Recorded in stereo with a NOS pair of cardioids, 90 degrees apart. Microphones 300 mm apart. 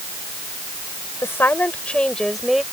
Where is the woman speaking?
10° left; by 2.6 s straight ahead.